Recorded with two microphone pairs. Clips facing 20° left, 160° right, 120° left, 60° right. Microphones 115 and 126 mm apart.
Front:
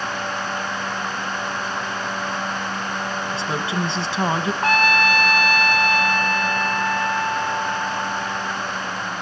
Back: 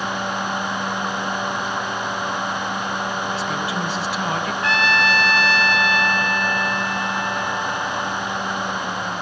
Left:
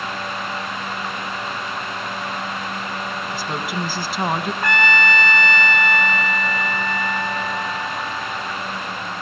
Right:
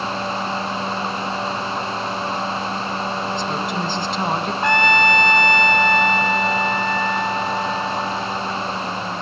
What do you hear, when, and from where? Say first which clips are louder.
3.3 s a woman speaking: even, right 3 dB; 45° left, 1.1 m
4.6 s a trumpet: front 2 dB, right 4 dB; 5° left, 1.0 m